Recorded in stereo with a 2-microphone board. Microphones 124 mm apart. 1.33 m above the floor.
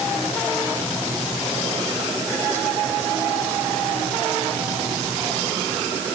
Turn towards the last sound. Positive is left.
No sound to turn to.